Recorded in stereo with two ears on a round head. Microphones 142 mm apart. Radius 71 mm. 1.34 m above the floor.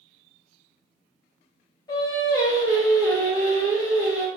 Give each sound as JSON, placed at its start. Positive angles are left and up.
{"t": 1.9, "sound": "singing", "side_deg": 25, "distance_m": 0.9}